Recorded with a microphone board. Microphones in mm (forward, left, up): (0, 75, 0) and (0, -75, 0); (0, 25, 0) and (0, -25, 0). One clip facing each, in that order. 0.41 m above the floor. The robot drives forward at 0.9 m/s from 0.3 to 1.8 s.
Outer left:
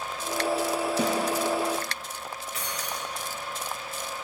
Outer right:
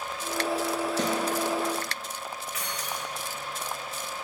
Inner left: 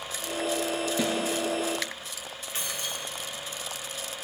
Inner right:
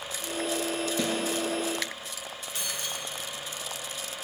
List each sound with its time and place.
1.0 s a snare drum: 10° left (ahead or behind), 1.1 m; by 1.1 s 5° left (ahead or behind), 1.2 m
2.5 s keys jangling: 35° left (ahead or behind), 1.3 m